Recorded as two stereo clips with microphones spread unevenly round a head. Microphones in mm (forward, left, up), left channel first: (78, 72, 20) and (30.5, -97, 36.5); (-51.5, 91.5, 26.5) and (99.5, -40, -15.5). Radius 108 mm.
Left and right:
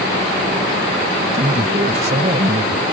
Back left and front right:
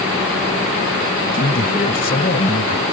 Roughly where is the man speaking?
Behind.